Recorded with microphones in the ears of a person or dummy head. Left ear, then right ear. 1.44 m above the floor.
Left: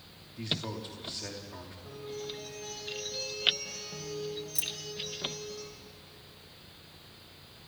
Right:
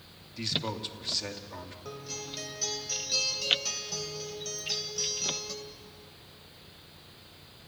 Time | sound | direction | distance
0.4 | a man speaking | 35° right (ahead or behind) | 2.5 m
1.9 | a guitar | 75° right (ahead or behind) | 3.5 m
4.5 | keys jangling | 65° left (ahead or behind) | 1.4 m